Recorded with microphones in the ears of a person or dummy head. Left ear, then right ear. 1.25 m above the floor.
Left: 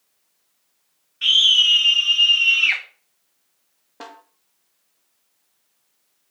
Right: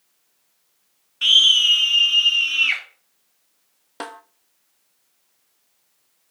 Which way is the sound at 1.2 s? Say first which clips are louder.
Right 1 dB; 30° right (ahead or behind).